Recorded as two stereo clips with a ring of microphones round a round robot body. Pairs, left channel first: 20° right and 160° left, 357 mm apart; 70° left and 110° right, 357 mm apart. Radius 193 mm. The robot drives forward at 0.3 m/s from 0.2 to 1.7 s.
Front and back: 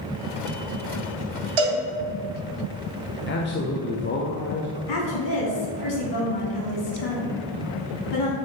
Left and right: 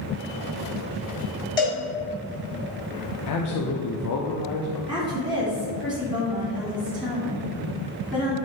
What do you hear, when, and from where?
1.6 s a cowbell: 145° left, 2 m
3.3 s a man speaking: 35° left, 0.7 m
4.9 s a woman speaking: 25° right, 2.5 m